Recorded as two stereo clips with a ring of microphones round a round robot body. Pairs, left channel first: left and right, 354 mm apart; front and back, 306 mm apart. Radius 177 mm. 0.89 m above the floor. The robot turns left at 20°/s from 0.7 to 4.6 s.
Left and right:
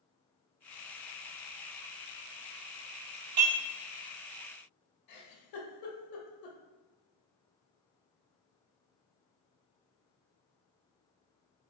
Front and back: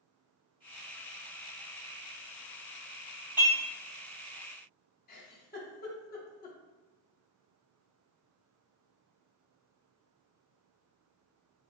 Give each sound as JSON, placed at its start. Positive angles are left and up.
{"t": 3.4, "sound": "dishes clattering", "azimuth_deg": -95, "distance_m": 1.2}
{"t": 5.1, "sound": "a giggle", "azimuth_deg": 60, "distance_m": 0.7}